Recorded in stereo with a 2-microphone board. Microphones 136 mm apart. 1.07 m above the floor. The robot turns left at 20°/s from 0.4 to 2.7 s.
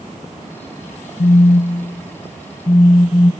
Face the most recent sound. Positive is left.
turn(degrees=45)